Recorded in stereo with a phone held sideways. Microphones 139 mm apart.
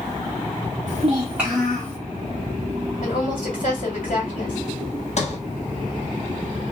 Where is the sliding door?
55° left (ahead or behind), 0.9 m.